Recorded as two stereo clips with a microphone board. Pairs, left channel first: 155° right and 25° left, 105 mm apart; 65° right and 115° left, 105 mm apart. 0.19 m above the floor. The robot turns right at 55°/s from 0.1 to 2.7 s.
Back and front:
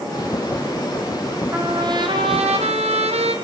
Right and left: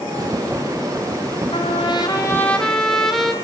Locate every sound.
1.5 s a trumpet: 45° right, 3.5 m; by 3.3 s 20° left, 3.5 m